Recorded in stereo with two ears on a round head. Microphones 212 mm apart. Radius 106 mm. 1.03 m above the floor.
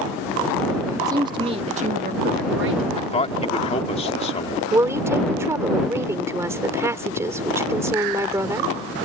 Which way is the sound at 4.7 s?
10° right (ahead or behind).